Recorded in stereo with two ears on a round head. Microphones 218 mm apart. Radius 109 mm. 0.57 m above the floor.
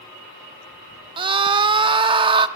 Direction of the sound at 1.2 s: 20° right (ahead or behind).